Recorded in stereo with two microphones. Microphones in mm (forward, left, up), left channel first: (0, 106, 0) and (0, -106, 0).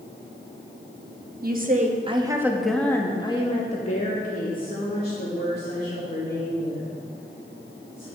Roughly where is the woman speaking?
Right.